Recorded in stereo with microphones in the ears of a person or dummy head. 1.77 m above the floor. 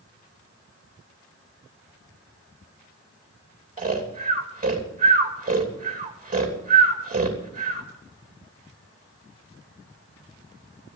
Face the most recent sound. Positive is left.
turn(degrees=-35)  # may be behind; listen again after turning